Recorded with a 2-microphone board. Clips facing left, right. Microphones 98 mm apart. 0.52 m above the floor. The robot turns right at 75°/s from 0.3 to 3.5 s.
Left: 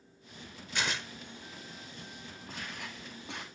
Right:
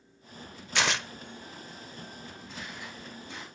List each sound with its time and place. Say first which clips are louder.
0.8 s tearing paper: right 6 dB; 85° right, 0.5 m; by 1.1 s 70° right (ahead or behind), 0.5 m
2.5 s footsteps: left 1 dB; 45° left, 7 m; by 3.5 s 120° left, 7 m